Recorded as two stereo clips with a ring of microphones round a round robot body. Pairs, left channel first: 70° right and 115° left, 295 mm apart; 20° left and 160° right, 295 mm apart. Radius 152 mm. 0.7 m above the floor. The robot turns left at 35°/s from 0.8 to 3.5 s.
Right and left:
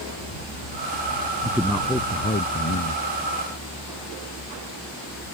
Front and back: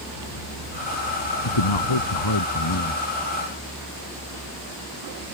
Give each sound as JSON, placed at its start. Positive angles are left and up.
{"t": 1.4, "sound": "a man speaking", "azimuth_deg": 30}